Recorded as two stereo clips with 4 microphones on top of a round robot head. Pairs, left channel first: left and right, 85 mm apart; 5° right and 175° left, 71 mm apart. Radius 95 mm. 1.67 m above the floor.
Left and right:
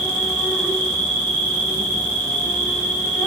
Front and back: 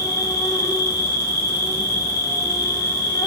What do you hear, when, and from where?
0.0 s an insect: 25° left, 4 m